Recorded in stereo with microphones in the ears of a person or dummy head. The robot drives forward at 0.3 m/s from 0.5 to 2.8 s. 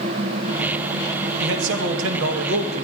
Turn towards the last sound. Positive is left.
turn(degrees=-85)